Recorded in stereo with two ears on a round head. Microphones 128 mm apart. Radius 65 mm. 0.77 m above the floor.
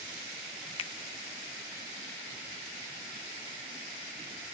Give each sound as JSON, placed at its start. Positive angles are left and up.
{"t": 0.8, "sound": "a finger snap", "side_deg": 40, "distance_m": 0.6}